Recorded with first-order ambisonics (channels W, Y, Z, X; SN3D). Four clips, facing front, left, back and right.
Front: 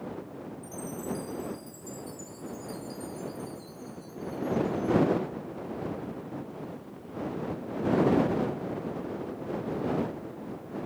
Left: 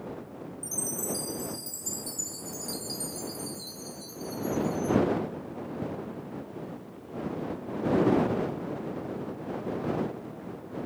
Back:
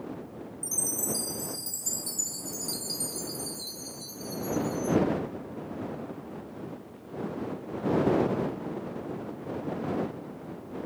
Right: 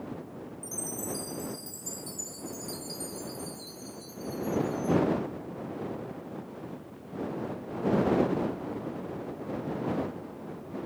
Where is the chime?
165° left.